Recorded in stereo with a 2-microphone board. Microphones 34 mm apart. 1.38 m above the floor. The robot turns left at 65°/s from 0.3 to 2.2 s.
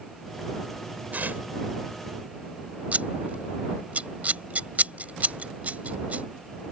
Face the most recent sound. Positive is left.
turn(degrees=-50)  # may be behind; listen again after turning